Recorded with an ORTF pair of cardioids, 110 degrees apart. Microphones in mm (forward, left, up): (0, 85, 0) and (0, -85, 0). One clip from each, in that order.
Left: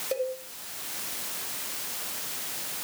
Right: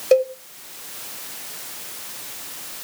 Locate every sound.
0.1 s a cowbell: 65° right, 2 m